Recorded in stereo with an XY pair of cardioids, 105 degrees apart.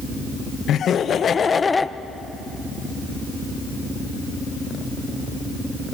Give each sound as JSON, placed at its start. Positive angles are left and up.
{"t": 0.7, "sound": "laughter", "azimuth_deg": 65, "distance_m": 1.7}